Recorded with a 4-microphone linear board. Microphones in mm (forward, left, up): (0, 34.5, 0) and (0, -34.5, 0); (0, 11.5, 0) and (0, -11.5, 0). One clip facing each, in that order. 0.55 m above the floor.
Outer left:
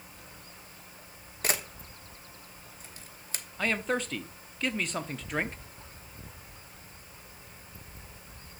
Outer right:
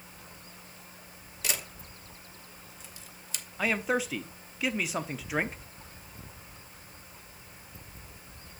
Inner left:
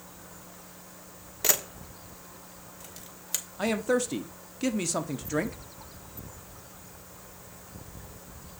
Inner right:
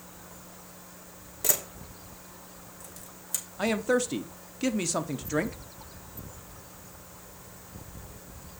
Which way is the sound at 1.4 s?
45° left (ahead or behind).